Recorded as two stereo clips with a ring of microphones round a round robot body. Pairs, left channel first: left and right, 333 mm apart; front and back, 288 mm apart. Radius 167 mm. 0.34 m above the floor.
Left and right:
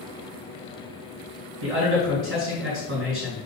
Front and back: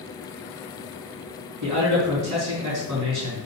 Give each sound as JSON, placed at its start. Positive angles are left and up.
{"t": 1.6, "sound": "a man speaking", "azimuth_deg": -145, "distance_m": 4.0}